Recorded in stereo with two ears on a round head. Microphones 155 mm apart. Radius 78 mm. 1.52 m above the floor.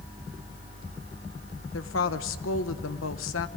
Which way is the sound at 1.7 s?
85° left.